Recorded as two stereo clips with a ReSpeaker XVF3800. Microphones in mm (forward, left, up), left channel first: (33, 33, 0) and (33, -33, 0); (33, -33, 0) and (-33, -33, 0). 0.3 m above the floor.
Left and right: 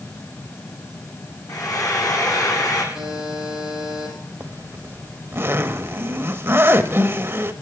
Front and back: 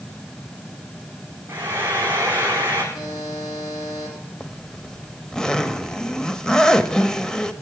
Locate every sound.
1.5 s frying: 120° left, 4 m
2.9 s a buzzer: 20° right, 9 m
4.4 s a zipper: 75° right, 0.7 m